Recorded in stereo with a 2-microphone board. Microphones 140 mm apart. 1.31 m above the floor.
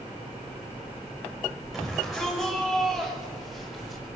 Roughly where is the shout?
Centre.